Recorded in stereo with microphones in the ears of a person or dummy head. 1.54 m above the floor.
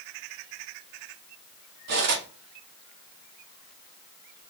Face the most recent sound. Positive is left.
turn(degrees=-60)  # may be behind; listen again after turning